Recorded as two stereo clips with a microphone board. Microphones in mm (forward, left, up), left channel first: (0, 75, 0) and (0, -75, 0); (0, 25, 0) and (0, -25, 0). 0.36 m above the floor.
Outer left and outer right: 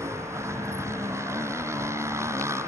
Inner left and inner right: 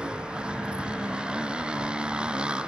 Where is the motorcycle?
20° right (ahead or behind).